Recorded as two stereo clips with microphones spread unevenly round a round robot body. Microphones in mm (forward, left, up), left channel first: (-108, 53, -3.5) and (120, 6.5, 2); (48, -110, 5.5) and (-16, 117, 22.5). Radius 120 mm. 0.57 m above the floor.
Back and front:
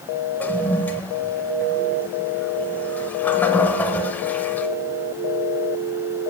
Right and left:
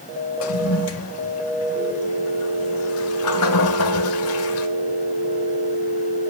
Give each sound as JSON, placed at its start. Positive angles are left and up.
{"t": 0.4, "sound": "a toilet flushing", "azimuth_deg": -110, "distance_m": 0.8}